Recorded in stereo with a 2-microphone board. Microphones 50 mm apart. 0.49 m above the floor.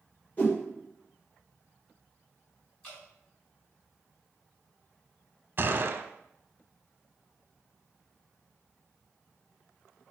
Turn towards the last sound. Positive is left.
turn(degrees=-45)  # may be behind; listen again after turning